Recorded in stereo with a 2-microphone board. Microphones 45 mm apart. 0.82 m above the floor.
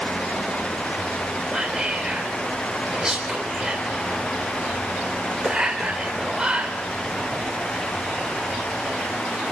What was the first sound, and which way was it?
Whispering, 20° right (ahead or behind).